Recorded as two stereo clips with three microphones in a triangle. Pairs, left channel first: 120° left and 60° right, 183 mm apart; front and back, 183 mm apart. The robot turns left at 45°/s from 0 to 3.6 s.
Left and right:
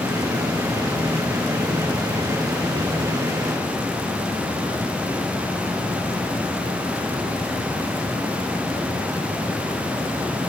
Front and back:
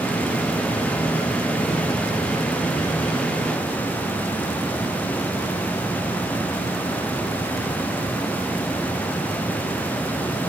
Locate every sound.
Only background noise.